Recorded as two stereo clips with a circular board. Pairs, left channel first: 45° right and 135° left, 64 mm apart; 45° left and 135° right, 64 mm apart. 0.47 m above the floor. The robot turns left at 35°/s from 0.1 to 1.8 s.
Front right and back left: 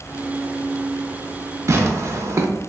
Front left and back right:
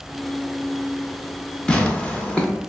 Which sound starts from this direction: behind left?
Tearing paper, at 1.7 s.